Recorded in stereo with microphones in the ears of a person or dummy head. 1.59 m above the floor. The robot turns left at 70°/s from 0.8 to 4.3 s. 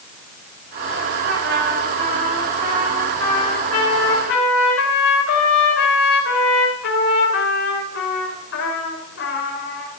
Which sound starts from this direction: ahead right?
A trumpet, at 1.2 s.